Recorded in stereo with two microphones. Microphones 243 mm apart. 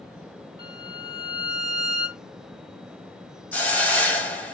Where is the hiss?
5° left (ahead or behind), 0.9 m.